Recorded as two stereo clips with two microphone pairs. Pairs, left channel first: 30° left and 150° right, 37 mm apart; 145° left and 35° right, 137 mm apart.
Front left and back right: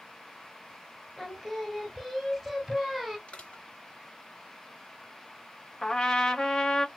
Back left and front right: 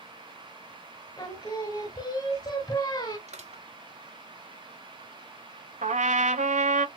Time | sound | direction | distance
1.2 | singing | 120° left | 1.4 m
3.3 | crushing | 20° right | 2.5 m
5.8 | a trumpet | 40° right | 0.9 m